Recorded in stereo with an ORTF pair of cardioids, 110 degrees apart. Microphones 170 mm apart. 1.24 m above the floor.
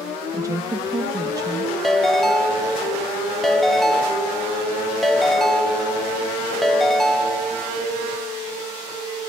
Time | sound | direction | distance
0.3 | a woman speaking | 20° right | 1.5 m
1.8 | a ringtone | straight ahead | 0.5 m